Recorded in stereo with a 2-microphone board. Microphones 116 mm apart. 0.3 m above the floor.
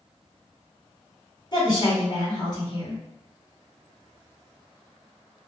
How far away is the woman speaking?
About 2.0 m.